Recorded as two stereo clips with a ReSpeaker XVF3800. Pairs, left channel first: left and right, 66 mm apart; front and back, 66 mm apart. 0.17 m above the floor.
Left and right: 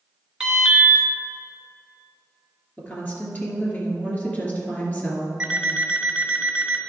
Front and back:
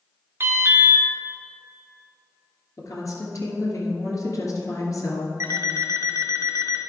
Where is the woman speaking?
30° left, 2.5 m.